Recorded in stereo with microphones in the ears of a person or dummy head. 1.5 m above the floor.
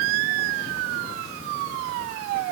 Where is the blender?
No blender in this recording.